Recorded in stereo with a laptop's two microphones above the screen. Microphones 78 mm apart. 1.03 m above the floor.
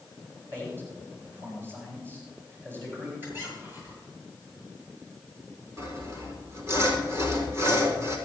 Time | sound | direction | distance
0.5 | a man speaking | 30° right (ahead or behind) | 7.5 m
3.2 | a squeak | 25° right (ahead or behind) | 8.5 m
5.8 | sawing | 40° right (ahead or behind) | 4 m